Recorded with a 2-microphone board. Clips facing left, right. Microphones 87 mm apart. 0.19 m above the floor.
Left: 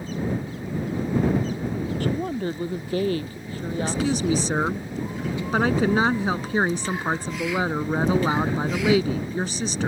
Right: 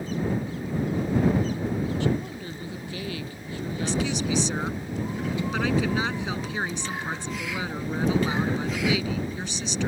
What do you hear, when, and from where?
2.0 s a woman speaking: 50° left (ahead or behind); by 4.5 s 40° left (ahead or behind)
3.8 s a woman speaking: 40° left (ahead or behind)